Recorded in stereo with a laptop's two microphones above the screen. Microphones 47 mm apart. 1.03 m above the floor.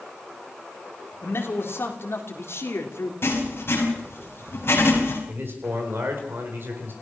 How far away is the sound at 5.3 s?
About 4 m.